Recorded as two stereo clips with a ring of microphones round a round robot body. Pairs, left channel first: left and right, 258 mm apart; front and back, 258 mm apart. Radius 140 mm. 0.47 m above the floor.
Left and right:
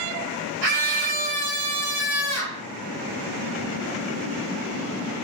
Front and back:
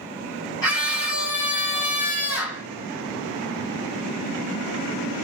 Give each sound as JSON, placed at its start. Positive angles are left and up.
{"t": 0.6, "sound": "a scream", "azimuth_deg": -80, "distance_m": 3.5}